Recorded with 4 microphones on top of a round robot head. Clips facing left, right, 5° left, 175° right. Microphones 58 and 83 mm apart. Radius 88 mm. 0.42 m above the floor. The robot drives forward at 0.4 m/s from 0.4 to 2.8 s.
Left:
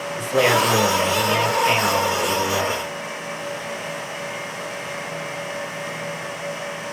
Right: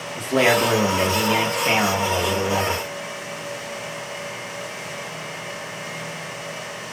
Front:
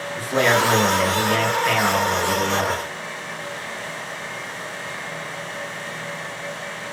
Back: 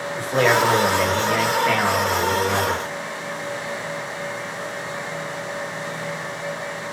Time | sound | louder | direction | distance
0.2 | a man speaking | even, back 1 dB | 75° right | 1.2 m